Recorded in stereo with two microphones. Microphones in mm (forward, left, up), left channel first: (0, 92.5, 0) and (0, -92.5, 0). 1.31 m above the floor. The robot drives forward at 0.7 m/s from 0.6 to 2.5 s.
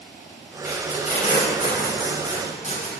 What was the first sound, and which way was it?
Tape being pulled, 50° left (ahead or behind).